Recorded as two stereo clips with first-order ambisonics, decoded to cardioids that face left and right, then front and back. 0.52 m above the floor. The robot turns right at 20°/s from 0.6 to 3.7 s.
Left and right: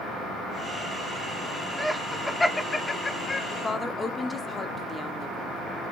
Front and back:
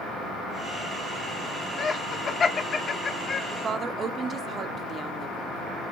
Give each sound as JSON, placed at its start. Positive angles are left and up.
{"t": 1.8, "sound": "laughter", "azimuth_deg": 5, "distance_m": 0.7}
{"t": 3.5, "sound": "a woman speaking", "azimuth_deg": 145, "distance_m": 0.8}